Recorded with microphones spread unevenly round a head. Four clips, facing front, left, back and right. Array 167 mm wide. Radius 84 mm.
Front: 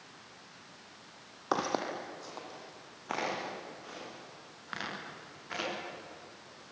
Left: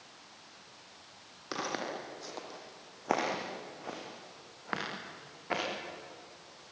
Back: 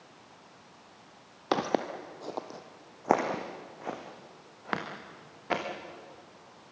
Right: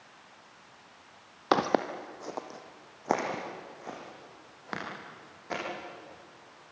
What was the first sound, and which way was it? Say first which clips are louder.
Footsteps: right 10 dB, back 3 dB; 105° right.